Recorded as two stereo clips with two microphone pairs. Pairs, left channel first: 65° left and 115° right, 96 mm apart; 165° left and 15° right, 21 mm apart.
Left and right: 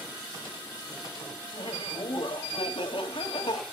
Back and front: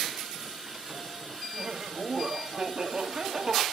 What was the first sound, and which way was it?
Laughter, 45° left.